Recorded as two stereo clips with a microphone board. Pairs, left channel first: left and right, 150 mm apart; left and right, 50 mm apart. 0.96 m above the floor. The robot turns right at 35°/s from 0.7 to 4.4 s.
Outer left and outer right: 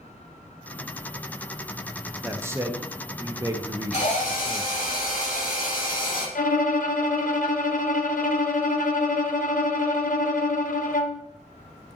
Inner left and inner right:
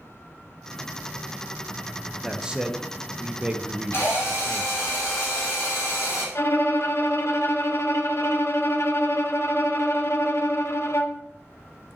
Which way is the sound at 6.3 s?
65° left (ahead or behind).